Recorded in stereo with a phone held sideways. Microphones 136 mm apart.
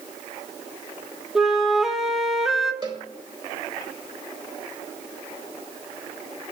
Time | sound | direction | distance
1.4 | a flute | centre (ahead or behind) | 1.0 m
2.8 | a cowbell | 30° right (ahead or behind) | 1.7 m